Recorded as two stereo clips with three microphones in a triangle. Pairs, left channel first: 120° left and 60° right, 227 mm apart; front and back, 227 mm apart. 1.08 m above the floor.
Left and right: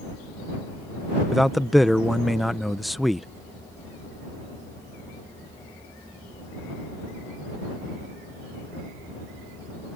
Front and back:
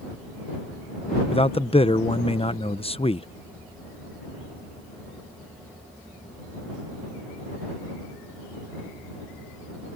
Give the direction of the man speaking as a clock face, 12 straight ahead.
11 o'clock.